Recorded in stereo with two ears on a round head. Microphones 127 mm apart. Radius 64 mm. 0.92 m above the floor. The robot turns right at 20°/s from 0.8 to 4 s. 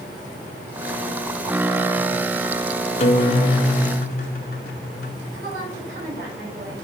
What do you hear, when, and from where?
3.0 s a guitar: 50° left (ahead or behind), 1.1 m; by 5.2 s 65° left (ahead or behind), 1.1 m
5.3 s a woman speaking: 80° right, 4.5 m